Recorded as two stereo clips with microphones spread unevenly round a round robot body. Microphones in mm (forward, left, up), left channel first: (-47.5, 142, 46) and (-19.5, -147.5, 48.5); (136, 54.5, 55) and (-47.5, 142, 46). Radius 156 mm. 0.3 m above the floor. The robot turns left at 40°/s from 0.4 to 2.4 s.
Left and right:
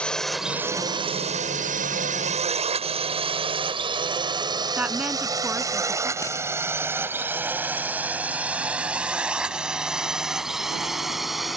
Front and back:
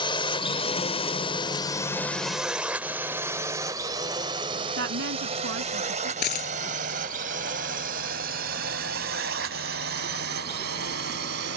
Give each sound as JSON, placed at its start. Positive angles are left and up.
{"t": 0.0, "sound": "a drone", "azimuth_deg": 15}
{"t": 4.8, "sound": "a woman speaking", "azimuth_deg": -170}
{"t": 6.2, "sound": "a dropped coin", "azimuth_deg": 15}